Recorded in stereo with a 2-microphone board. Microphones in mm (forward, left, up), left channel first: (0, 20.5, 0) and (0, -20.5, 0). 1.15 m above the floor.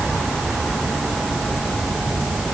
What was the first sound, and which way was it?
Only background noise.